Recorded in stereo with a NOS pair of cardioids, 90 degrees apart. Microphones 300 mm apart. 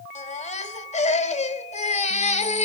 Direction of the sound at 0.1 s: 25° left.